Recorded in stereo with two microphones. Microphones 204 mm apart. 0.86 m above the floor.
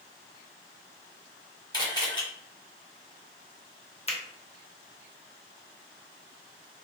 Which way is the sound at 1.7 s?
20° left (ahead or behind).